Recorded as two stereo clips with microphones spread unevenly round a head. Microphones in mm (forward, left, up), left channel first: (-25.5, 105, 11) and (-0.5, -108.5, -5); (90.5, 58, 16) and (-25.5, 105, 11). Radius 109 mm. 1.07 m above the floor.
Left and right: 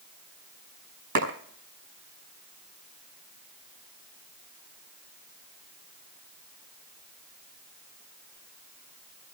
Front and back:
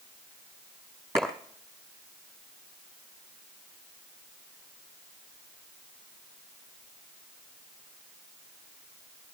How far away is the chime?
I don't hear a chime.